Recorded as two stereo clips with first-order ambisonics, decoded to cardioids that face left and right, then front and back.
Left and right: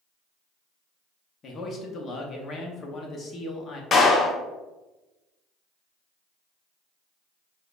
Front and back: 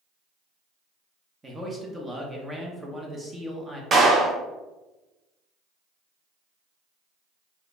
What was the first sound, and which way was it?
A man speaking, 115° left.